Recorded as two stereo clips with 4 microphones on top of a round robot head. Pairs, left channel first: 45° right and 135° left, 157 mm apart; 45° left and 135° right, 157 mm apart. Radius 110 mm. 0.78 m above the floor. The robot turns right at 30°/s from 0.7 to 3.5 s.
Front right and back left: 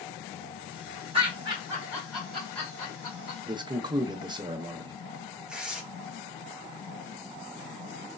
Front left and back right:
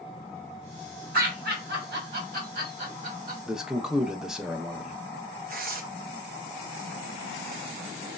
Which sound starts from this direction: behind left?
A man speaking, at 3.5 s.